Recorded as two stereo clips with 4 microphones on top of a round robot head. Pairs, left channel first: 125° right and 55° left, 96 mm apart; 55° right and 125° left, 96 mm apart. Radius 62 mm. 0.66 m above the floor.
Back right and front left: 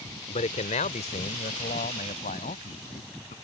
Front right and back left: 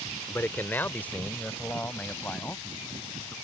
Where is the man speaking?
125° right; by 3.3 s 135° right.